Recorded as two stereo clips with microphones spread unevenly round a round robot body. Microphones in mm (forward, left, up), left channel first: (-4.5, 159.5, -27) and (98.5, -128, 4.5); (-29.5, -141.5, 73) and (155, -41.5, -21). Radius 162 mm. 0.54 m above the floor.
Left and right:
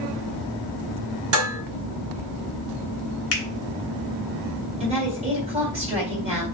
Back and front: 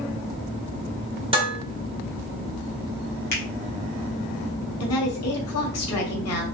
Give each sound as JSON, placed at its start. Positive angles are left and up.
{"t": 1.3, "sound": "dishes clattering", "azimuth_deg": -25, "distance_m": 1.4}
{"t": 3.3, "sound": "a finger snap", "azimuth_deg": 145, "distance_m": 1.6}
{"t": 4.8, "sound": "a woman speaking", "azimuth_deg": -145, "distance_m": 1.8}